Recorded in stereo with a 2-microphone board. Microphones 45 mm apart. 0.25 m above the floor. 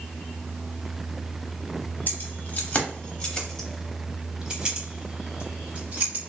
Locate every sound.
2.1 s keys jangling: 45° left (ahead or behind), 1.1 m; by 6.3 s 40° right (ahead or behind), 1.6 m